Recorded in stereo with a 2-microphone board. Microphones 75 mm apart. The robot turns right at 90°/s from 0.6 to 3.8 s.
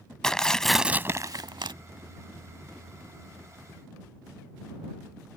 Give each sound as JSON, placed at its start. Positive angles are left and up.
{"t": 0.2, "sound": "tearing paper", "azimuth_deg": 170}